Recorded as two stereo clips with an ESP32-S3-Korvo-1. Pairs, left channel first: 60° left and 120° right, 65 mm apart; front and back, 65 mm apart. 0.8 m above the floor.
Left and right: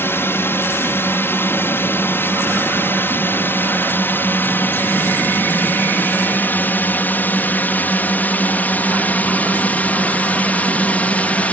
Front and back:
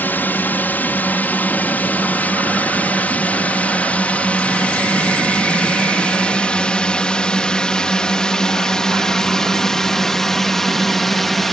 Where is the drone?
40° left; by 11.5 s 85° left.